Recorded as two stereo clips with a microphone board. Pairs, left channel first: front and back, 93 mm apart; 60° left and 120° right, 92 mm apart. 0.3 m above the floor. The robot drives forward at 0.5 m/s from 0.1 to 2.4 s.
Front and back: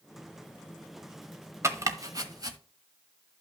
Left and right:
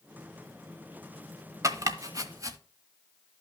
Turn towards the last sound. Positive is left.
turn(degrees=-155)